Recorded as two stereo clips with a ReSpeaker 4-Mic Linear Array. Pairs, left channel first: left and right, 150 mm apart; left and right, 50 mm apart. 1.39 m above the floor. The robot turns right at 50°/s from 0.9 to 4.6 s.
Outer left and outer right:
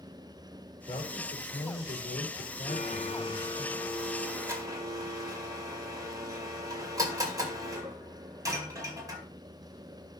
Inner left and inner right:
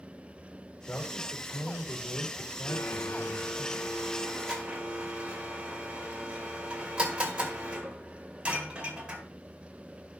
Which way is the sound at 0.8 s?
30° left.